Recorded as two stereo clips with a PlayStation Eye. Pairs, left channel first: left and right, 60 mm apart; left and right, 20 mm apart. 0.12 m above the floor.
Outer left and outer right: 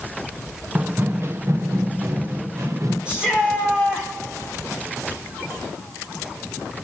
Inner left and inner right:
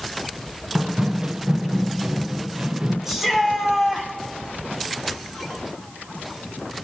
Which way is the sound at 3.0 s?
15° right (ahead or behind).